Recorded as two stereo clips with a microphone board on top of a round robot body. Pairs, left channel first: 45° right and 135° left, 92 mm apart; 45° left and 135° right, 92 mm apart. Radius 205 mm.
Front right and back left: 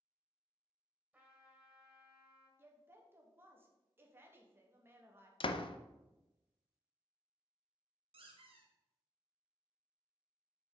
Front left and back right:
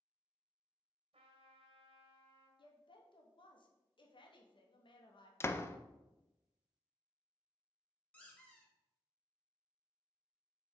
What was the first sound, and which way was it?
A trumpet, 145° right.